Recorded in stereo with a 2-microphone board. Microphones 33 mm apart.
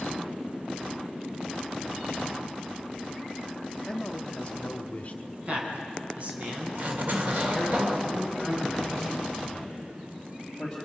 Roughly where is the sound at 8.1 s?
Centre.